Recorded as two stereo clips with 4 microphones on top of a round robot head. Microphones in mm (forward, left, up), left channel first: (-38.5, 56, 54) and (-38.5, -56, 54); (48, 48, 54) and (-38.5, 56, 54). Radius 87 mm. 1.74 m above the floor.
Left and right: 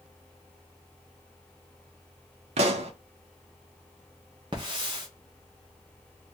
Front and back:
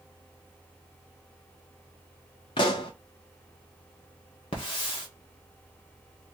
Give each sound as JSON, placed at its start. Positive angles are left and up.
{"t": 2.6, "sound": "a pop", "azimuth_deg": -50, "distance_m": 0.5}
{"t": 4.5, "sound": "a hiss", "azimuth_deg": -35, "distance_m": 1.0}